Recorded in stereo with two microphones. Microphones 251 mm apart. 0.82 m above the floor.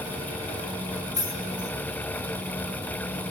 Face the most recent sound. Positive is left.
turn(degrees=-80)